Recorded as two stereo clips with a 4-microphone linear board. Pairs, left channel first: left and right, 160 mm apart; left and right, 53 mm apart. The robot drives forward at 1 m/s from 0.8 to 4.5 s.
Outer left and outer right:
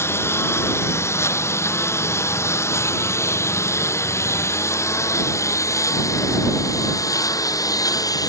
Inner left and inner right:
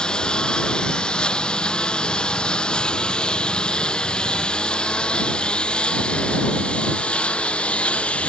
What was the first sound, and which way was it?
A lawn mower, 15° left (ahead or behind).